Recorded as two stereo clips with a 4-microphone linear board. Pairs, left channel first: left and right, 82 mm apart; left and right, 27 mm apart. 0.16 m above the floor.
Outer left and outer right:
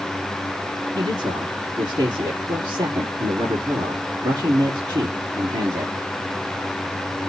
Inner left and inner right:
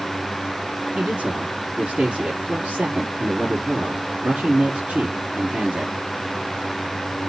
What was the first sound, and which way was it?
A man speaking, 60° right (ahead or behind).